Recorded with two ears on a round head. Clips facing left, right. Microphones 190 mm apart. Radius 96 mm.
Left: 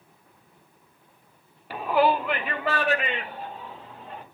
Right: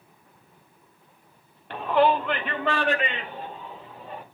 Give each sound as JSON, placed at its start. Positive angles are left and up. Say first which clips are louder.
{"t": 1.7, "sound": "a shout", "louder": "right 1 dB", "side_deg": 5, "distance_m": 0.8}